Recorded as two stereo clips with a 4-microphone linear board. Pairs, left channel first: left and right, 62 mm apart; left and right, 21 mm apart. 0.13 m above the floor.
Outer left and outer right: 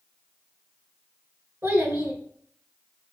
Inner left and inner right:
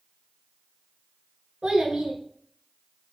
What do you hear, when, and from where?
1.6 s a child speaking: 45° right (ahead or behind), 1.4 m